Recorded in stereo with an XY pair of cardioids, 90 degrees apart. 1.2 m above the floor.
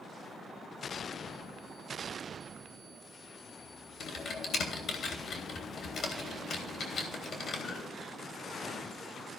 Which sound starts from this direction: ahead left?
Typing on a keyboard, at 4.0 s.